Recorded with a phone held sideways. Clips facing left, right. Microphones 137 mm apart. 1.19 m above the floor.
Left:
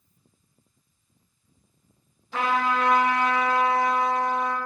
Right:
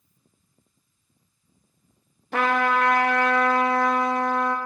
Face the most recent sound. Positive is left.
turn(degrees=-65)  # may be behind; listen again after turning